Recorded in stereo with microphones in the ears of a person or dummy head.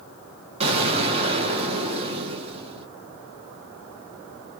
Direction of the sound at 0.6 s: 30° right (ahead or behind).